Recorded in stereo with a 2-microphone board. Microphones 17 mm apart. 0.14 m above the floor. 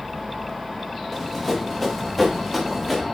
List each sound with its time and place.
1.1 s running footsteps: 10° right (ahead or behind), 3.5 m; by 3.0 s 5° right (ahead or behind), 5 m